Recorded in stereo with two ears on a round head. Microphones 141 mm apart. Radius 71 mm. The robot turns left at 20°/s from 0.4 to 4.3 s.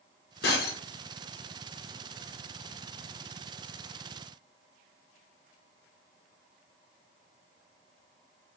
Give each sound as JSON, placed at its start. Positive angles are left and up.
{"t": 0.4, "sound": "breaking glass", "side_deg": 75, "distance_m": 2.0}